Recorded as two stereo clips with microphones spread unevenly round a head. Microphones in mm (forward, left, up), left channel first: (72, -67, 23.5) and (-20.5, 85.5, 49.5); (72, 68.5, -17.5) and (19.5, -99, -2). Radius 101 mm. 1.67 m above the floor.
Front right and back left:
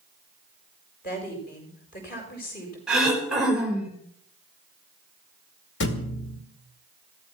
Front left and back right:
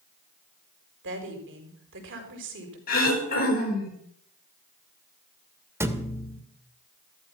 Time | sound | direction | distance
1.0 | a woman speaking | 105° right | 5.5 m
2.9 | throat clearing | 35° left | 5.5 m
5.8 | a thud | 35° right | 2 m